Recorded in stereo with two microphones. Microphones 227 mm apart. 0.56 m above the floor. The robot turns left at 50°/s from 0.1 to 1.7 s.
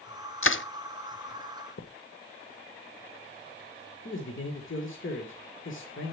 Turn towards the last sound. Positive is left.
turn(degrees=60)  # may be behind; listen again after turning